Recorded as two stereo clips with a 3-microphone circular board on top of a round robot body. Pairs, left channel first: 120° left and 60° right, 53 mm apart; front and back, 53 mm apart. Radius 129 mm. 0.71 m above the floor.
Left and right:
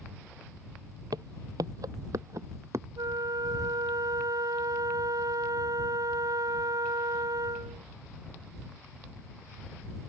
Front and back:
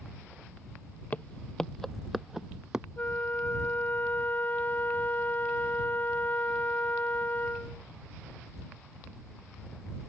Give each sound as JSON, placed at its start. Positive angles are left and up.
{"t": 1.1, "sound": "footsteps", "azimuth_deg": -60}
{"t": 3.0, "sound": "a flute", "azimuth_deg": -60}